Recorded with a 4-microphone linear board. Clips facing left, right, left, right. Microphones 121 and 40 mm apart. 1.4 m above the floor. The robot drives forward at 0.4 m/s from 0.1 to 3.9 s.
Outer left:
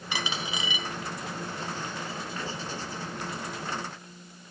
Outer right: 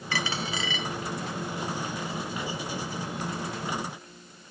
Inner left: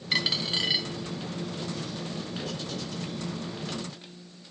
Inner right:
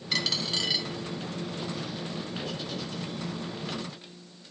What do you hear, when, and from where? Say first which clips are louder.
0.1 s a dropped coin: outer right 2 dB, inner left 2 dB; 20° left (ahead or behind), 0.8 m; by 0.9 s 15° left (ahead or behind), 0.9 m